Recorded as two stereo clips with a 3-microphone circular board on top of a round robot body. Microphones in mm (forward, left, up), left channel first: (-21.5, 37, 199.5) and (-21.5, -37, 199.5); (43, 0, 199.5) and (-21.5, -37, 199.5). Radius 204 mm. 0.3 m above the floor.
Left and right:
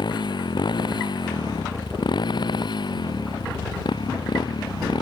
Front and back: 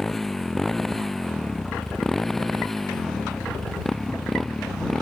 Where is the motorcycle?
120° left; by 5.0 s 115° left.